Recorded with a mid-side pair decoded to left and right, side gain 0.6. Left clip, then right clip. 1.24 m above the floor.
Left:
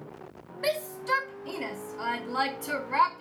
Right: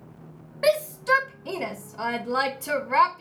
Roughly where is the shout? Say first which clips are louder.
Right 7 dB; ahead right.